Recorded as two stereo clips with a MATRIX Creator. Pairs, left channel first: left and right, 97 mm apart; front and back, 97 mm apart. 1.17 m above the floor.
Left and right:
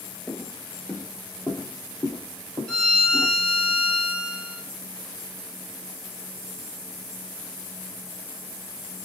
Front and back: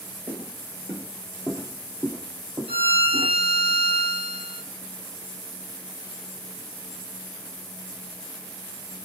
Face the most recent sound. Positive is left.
turn(degrees=175)